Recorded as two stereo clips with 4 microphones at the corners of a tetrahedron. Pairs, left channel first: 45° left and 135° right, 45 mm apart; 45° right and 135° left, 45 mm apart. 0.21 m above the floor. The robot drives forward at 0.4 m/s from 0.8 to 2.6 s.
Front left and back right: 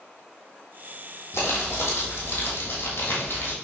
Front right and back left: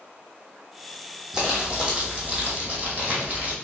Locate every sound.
1.3 s crumpling: 60° left, 1.7 m; by 3.5 s 75° left, 1.5 m